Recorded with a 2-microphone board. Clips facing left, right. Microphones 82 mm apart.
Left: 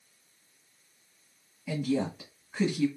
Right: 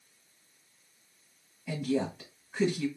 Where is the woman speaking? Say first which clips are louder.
Left 1 dB; centre (ahead or behind), 1.2 m.